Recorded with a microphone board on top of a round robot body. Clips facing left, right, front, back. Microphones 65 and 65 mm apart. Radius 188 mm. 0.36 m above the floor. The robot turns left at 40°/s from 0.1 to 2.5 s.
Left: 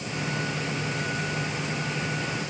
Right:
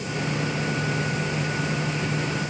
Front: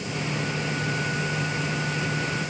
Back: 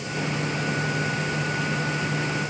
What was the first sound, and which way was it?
Only background noise.